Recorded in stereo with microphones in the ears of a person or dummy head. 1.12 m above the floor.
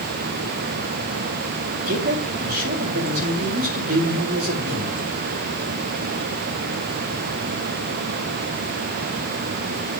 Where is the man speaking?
40° right (ahead or behind), 2.5 m.